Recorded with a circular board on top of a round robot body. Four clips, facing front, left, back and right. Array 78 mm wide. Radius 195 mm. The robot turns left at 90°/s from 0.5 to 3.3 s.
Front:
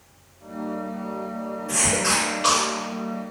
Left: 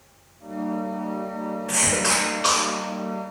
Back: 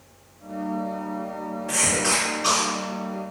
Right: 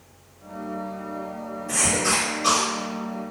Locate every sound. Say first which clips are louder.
1.7 s a cough: right 1 dB, front 1 dB; 120° left, 1.4 m; by 2.7 s 30° left, 1.4 m